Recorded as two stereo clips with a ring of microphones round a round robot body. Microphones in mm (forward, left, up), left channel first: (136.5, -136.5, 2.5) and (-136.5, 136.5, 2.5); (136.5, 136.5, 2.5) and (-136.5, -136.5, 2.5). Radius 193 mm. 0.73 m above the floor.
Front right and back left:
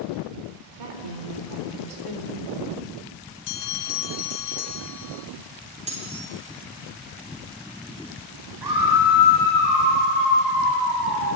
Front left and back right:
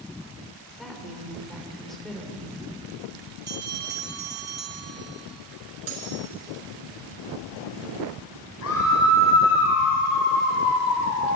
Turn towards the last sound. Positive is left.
turn(degrees=100)